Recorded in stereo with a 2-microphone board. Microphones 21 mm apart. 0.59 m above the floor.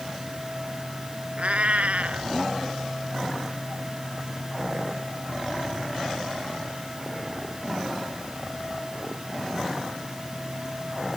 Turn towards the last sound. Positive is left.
turn(degrees=-75)  # may be behind; listen again after turning